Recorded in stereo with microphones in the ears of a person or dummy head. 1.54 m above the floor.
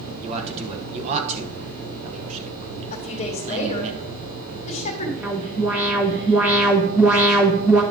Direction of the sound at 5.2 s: 10° right (ahead or behind).